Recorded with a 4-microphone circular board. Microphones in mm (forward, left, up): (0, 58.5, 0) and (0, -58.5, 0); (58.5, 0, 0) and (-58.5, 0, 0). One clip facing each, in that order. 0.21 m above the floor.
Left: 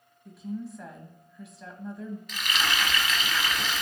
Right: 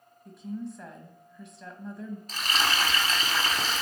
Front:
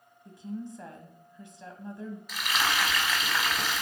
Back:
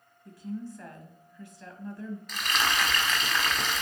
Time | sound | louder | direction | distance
0.2 | a woman speaking | even, back 1 dB | 5° left | 1.0 m
2.3 | frying | right 2 dB, even | 80° right | 1.1 m